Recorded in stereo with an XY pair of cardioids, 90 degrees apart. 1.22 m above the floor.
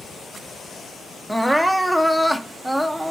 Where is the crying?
Straight ahead, 0.6 m.